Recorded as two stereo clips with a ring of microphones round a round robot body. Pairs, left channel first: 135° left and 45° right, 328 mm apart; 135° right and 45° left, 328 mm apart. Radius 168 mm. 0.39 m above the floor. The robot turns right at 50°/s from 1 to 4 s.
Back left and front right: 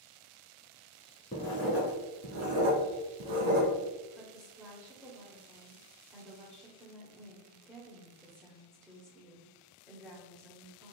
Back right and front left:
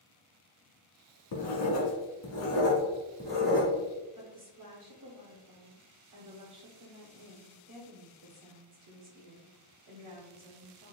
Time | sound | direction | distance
1.3 | writing | 155° right | 1.2 m
4.2 | a woman speaking | 35° left | 1.1 m